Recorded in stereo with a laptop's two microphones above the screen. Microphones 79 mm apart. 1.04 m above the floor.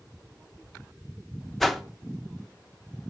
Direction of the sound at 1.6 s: 5° left (ahead or behind).